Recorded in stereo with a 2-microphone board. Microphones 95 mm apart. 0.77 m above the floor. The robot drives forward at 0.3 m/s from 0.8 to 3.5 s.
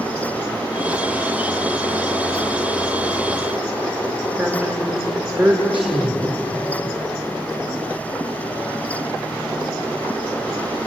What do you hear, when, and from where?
4.4 s a woman speaking: 20° right (ahead or behind), 2.5 m